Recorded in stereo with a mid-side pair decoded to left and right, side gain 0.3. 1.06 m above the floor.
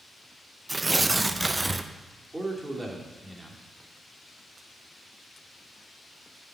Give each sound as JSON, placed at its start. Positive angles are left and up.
{"t": 0.7, "sound": "tearing paper", "azimuth_deg": -25, "distance_m": 0.6}
{"t": 2.3, "sound": "a man speaking", "azimuth_deg": -20, "distance_m": 2.5}